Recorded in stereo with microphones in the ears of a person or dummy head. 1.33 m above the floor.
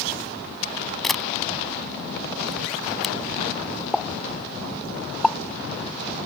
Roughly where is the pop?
Centre.